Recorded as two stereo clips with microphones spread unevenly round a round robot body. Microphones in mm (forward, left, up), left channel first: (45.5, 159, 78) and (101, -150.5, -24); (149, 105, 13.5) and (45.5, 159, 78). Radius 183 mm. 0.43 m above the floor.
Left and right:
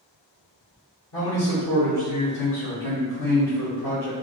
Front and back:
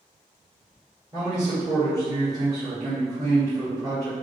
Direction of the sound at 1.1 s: 70° left.